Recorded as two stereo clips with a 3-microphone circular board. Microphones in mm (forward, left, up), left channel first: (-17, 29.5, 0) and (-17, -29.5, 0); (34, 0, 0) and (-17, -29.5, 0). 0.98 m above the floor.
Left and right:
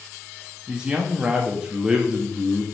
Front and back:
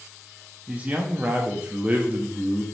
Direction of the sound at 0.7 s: 140° right.